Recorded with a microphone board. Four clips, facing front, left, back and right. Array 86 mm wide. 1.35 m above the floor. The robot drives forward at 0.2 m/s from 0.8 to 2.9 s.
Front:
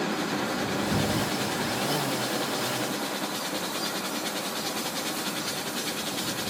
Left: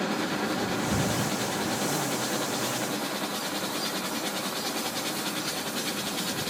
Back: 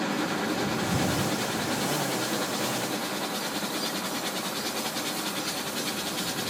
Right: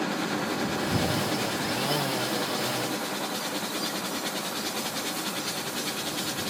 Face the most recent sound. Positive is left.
turn(degrees=85)